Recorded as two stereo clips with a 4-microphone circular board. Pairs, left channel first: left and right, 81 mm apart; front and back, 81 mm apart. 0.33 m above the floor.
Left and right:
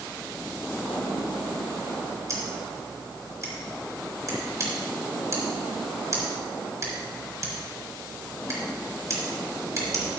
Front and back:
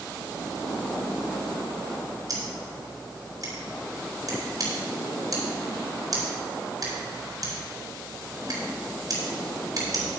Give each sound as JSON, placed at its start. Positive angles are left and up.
{"t": 2.3, "sound": "scissors", "azimuth_deg": -140, "distance_m": 4.0}